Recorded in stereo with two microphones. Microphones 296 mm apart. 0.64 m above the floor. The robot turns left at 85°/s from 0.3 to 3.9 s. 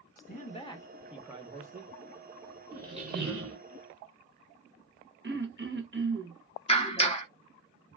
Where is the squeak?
5° right, 1.0 m; by 3.6 s 75° right, 1.0 m.